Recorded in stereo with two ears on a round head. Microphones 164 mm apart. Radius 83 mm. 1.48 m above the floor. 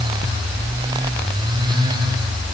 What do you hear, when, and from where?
Only background noise.